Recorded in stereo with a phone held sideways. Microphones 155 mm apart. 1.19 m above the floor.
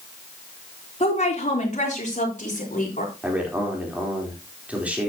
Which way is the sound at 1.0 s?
45° left (ahead or behind).